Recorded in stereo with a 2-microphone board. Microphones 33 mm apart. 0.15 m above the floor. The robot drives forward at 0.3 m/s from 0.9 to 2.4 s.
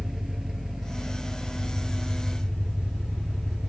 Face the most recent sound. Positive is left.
turn(degrees=-10)  # may be behind; listen again after turning